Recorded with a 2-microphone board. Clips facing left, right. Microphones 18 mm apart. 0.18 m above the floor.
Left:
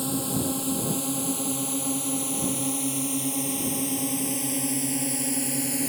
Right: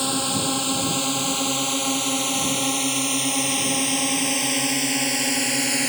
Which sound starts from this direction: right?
A drone, at 0.0 s.